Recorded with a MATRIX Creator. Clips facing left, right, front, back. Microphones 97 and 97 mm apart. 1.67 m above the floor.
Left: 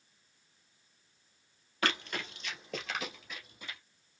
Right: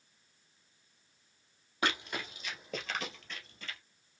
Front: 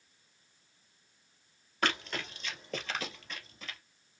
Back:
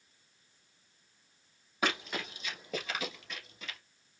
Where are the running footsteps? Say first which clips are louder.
Even, even; 120° right, 1.7 m; by 3.8 s 90° left, 1.7 m.